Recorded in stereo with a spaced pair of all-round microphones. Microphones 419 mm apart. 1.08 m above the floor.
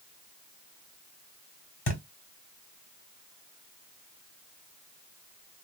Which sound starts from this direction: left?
A thud, at 1.9 s.